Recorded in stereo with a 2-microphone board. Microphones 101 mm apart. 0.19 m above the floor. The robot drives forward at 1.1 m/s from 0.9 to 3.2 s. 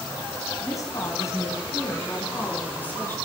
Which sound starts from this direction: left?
A woman speaking, at 0.6 s.